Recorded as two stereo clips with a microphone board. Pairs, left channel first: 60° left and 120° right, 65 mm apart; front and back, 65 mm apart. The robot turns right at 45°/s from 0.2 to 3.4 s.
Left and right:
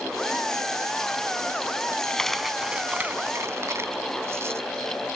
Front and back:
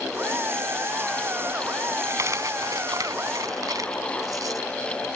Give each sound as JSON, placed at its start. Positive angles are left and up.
{"t": 2.1, "sound": "a dropped coin", "azimuth_deg": 135, "distance_m": 1.1}